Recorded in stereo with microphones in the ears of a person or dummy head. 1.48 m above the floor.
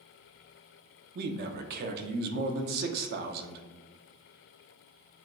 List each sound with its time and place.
1.1 s a man speaking: 50° right (ahead or behind), 0.6 m